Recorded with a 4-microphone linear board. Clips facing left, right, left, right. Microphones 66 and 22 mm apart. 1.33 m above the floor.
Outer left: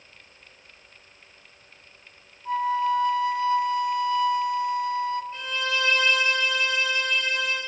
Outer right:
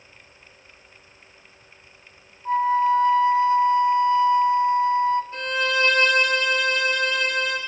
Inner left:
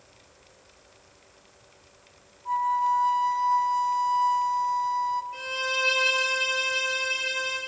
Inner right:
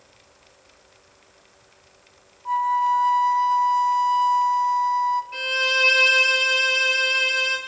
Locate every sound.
2.5 s a flute: 30° right (ahead or behind), 0.9 m
5.3 s a violin: 75° right (ahead or behind), 3.5 m